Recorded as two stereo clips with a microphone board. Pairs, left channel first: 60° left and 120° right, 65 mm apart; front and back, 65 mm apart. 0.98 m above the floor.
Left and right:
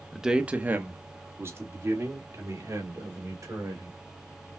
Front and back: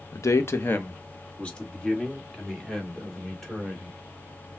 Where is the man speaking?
35° right, 0.6 m; by 4.0 s 85° right, 3 m.